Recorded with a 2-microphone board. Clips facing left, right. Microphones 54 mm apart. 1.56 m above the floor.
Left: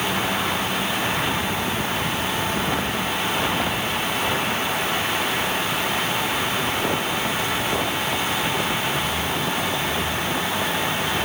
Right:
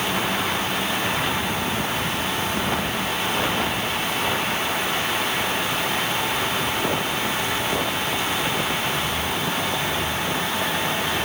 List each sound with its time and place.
Only background noise.